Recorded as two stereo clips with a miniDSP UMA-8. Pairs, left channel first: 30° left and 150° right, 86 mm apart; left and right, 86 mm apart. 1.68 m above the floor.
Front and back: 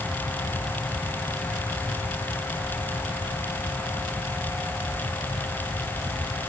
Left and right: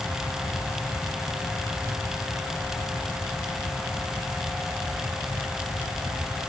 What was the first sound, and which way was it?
Only background noise.